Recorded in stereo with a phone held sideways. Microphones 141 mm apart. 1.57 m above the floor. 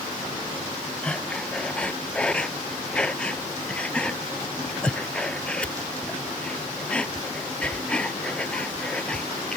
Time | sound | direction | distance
1.0 | breathing | 10° left (ahead or behind) | ?